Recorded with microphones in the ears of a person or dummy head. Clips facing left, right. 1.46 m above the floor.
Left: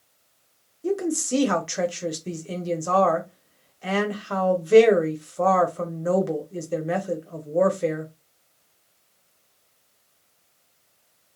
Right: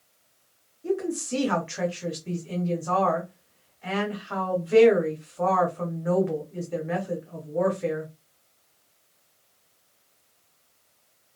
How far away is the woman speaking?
About 0.8 m.